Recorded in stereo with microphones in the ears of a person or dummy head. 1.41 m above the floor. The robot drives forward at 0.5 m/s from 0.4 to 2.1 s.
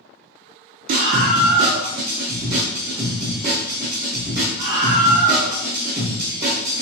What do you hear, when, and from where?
0.9 s a scream: 45° right (ahead or behind), 0.6 m; by 6.8 s 20° right (ahead or behind), 1.1 m